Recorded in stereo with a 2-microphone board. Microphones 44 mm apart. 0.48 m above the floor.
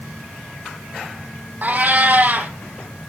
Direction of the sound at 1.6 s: 45° right (ahead or behind).